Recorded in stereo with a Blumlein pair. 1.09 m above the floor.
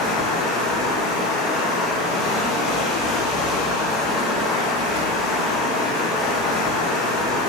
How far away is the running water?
About 1.2 m.